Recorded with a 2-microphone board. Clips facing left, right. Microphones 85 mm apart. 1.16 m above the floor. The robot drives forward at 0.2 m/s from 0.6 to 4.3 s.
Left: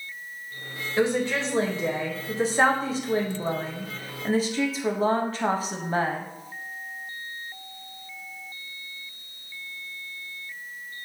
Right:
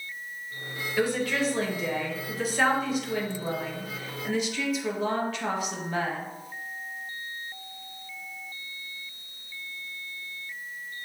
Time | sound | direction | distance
1.0 | a woman speaking | 20° left (ahead or behind) | 0.9 m